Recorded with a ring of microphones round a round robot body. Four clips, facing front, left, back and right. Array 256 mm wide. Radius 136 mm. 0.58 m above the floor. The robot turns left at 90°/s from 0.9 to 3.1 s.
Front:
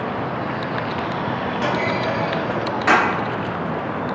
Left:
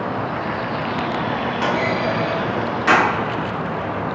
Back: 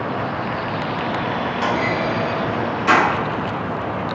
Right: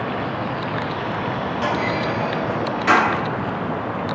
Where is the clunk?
130° left, 2.0 m; by 3.0 s 5° left, 2.0 m.